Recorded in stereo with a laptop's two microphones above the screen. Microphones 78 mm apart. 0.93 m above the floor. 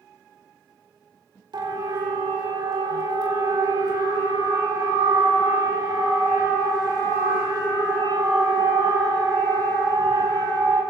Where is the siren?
70° right (ahead or behind), 3.5 m; by 10.8 s 50° right (ahead or behind), 9 m.